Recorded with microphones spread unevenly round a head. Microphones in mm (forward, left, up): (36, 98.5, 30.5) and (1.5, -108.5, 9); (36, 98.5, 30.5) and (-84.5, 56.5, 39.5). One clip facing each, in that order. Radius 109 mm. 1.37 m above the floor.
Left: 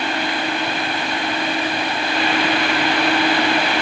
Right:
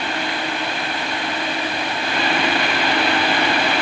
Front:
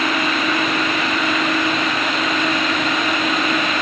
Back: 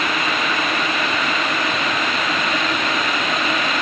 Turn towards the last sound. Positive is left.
No sound to turn to.